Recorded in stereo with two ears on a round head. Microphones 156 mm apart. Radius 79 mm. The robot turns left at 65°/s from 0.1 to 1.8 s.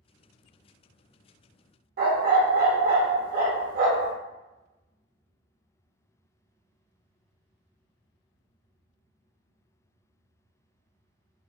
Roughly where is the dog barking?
Right.